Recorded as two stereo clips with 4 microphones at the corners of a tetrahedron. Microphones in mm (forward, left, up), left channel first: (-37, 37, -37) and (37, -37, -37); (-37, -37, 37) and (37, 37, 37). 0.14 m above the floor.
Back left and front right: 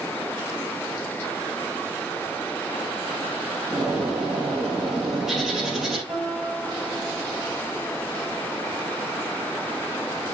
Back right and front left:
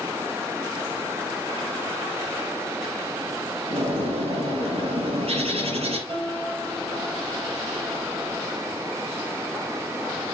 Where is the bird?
40° left, 4 m.